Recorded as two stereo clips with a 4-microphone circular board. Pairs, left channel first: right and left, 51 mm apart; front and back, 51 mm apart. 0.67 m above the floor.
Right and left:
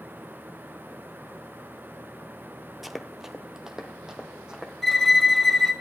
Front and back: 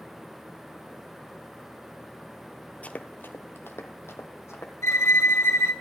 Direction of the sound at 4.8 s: 5° right.